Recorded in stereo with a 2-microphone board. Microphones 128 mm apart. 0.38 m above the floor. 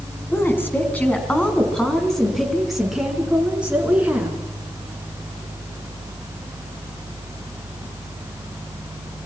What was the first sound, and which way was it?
A woman speaking, 20° left (ahead or behind).